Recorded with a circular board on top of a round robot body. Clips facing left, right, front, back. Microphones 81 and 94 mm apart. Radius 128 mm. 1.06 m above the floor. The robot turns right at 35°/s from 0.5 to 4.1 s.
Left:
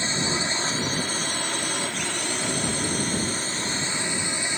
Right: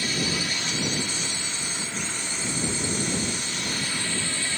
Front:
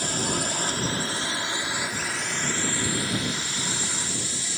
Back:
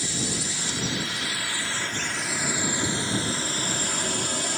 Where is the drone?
30° left; by 4.6 s 155° left.